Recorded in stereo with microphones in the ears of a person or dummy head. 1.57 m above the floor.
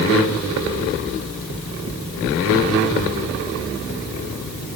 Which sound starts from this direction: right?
Knocking, at 1.5 s.